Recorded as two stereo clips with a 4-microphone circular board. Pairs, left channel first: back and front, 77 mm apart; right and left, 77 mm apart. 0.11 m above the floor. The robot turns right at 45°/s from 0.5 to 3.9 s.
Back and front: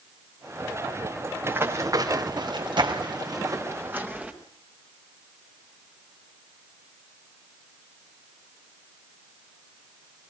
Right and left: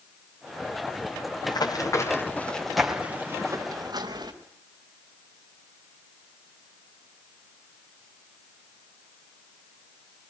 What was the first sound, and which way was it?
Running footsteps, 70° right.